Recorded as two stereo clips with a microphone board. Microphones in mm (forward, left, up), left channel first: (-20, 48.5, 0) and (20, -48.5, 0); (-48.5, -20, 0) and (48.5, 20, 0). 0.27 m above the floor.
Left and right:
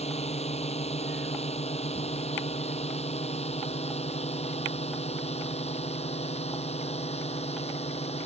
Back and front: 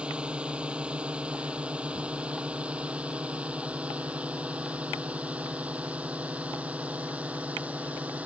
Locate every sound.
0.0 s a drone: 105° left; by 8.3 s 100° left